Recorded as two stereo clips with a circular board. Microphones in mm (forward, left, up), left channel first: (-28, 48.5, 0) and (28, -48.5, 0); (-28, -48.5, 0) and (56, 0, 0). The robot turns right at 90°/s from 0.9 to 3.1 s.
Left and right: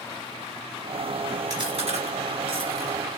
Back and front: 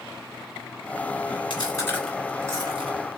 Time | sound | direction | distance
1.5 | chewing | 115° right | 2.5 m